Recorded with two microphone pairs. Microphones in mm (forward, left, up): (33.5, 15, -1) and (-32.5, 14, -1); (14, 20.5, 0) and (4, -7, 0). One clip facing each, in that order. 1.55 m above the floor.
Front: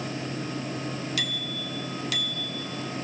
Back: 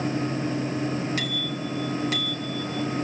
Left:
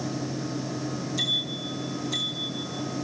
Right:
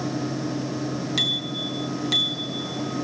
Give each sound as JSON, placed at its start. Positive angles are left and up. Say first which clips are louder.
{"t": 1.2, "sound": "a bicycle bell", "louder": "back 4 dB, right 2 dB", "azimuth_deg": -120, "distance_m": 3.0}